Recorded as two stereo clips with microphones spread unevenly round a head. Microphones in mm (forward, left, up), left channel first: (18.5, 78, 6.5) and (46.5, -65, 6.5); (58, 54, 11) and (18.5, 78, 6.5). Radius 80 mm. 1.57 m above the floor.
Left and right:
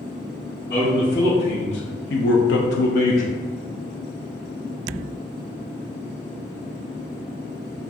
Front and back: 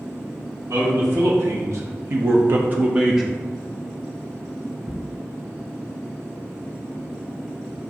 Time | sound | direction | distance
0.7 | a man speaking | 140° left | 1.3 m